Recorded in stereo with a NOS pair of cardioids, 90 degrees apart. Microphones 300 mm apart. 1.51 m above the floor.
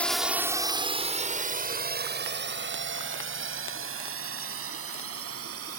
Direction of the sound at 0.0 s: 5° left.